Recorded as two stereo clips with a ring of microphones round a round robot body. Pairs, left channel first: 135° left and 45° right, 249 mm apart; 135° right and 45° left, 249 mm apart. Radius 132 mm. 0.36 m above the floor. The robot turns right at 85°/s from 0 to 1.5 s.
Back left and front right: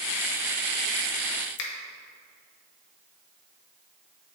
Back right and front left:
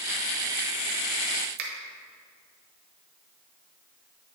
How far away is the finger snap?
About 1.2 m.